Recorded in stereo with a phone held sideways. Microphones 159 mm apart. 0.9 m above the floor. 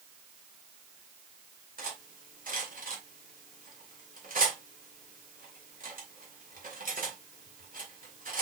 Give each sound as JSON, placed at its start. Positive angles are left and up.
{"t": 1.8, "sound": "cutlery clinking", "side_deg": -60, "distance_m": 2.0}